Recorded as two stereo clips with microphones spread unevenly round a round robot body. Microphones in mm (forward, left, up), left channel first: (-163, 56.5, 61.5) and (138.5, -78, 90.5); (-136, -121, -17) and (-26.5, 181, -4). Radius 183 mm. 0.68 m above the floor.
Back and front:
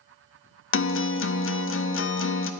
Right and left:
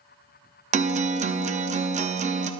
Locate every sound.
0.7 s a guitar: 135° left, 0.9 m